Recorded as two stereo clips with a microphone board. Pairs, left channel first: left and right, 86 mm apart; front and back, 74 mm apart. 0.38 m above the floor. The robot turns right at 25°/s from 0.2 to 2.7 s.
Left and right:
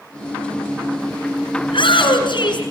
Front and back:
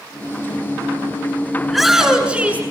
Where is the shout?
90° left, 5.5 m; by 2.6 s 110° left, 5.5 m.